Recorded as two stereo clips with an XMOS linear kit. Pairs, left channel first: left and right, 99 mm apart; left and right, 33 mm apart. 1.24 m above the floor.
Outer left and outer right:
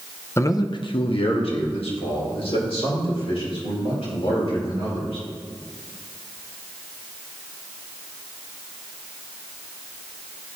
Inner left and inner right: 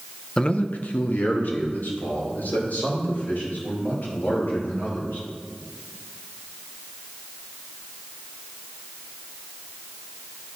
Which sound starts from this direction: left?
A man speaking, at 0.4 s.